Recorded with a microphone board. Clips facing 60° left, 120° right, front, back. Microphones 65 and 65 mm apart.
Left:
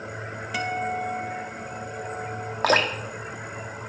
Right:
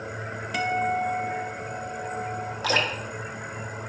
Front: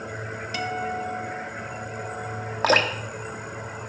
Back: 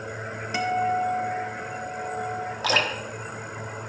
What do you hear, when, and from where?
0.5 s a guitar: 150° left, 1.0 m
2.6 s dripping: 35° left, 1.1 m